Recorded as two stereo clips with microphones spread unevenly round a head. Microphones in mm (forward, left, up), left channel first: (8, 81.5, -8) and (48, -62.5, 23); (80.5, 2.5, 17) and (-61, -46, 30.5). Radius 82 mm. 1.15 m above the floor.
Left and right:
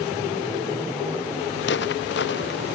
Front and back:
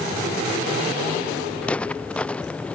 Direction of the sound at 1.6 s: 105° left.